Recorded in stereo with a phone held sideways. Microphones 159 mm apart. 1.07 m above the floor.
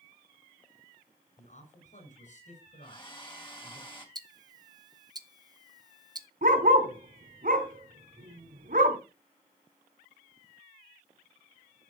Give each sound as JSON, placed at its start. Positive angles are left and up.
{"t": 1.4, "sound": "a man speaking", "side_deg": 50, "distance_m": 7.0}
{"t": 2.8, "sound": "a hair dryer", "side_deg": 30, "distance_m": 3.0}
{"t": 4.2, "sound": "ticking", "side_deg": -25, "distance_m": 0.9}
{"t": 6.4, "sound": "a dog barking", "side_deg": -65, "distance_m": 3.5}